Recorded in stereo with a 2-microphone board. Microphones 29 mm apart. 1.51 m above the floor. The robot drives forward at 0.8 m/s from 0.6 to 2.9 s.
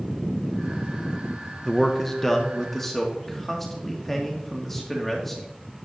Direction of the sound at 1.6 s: 20° left (ahead or behind).